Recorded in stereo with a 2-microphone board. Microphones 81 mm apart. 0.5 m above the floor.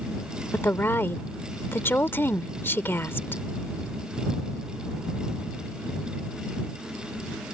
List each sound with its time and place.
0.5 s a woman speaking: 30° left (ahead or behind)